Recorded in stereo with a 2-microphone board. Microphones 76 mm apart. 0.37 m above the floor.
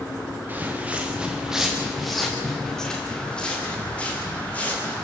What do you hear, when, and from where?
0.5 s footsteps: 25° right (ahead or behind), 4 m; by 5.0 s 20° left (ahead or behind), 8.5 m